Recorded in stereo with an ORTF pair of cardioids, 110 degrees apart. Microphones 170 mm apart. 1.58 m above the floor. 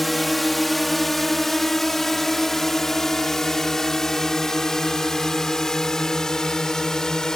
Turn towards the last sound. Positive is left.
turn(degrees=5)